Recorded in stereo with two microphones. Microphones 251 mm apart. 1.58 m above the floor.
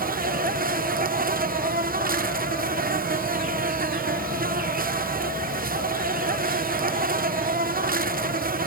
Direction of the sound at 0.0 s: 35° right (ahead or behind).